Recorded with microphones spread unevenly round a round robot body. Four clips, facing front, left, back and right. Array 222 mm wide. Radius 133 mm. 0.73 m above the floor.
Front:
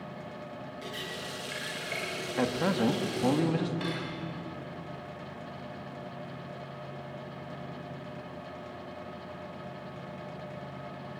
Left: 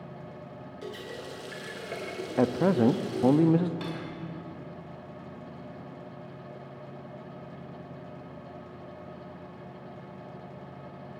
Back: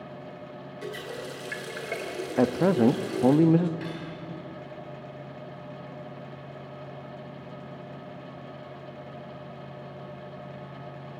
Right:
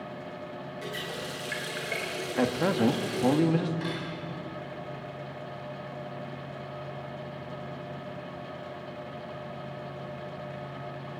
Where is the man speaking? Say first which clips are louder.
Left 2 dB, back 7 dB; 160° left, 0.9 m.